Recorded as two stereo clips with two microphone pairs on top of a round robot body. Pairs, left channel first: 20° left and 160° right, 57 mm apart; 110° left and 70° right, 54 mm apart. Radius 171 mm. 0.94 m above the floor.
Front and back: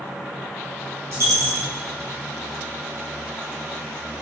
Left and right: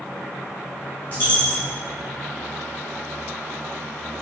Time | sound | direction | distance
1.1 | a dropped coin | 160° left | 1.0 m